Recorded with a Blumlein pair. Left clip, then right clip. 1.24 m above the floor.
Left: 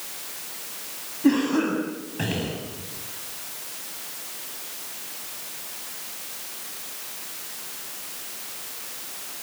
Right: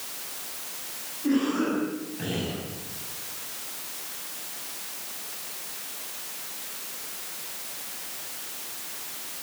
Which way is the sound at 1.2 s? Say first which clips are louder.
Left 4 dB; 30° left.